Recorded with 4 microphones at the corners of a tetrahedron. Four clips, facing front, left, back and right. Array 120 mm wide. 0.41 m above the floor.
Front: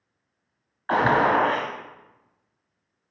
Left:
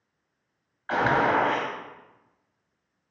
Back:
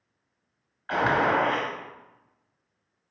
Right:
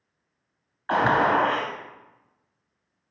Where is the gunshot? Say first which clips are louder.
Right 2 dB, front 4 dB; 35° right, 1.5 m.